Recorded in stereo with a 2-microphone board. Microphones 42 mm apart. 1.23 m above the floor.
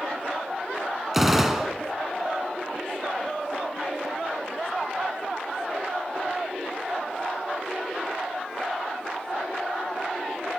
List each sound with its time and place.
1.1 s a gunshot: 5° right (ahead or behind), 3.5 m